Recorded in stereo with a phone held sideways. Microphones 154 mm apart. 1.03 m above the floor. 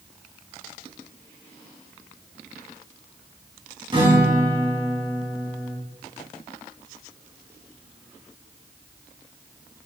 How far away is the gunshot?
I don't hear a gunshot.